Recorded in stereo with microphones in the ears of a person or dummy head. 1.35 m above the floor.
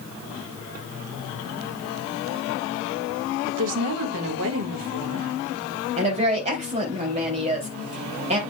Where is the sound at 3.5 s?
80° right, 1.8 m.